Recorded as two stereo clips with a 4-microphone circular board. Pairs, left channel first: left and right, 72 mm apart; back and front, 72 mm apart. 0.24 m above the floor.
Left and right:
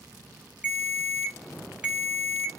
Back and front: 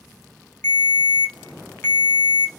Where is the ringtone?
150° right, 0.8 m.